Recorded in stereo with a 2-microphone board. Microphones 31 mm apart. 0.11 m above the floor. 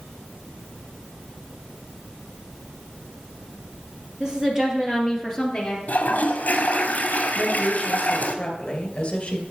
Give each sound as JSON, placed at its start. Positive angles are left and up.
{"t": 4.2, "sound": "a woman speaking", "side_deg": -30, "distance_m": 3.0}
{"t": 5.9, "sound": "a toilet flushing", "side_deg": 55, "distance_m": 1.0}
{"t": 7.3, "sound": "a woman speaking", "side_deg": 35, "distance_m": 2.0}